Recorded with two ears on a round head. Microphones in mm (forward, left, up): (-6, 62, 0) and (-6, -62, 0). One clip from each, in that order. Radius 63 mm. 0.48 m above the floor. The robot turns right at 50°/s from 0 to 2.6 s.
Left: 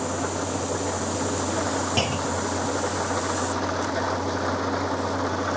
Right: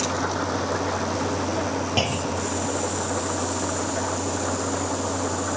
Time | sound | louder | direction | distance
0.0 | an engine running | right 2 dB | 65° right | ?
2.0 | a clunk | even | straight behind | ?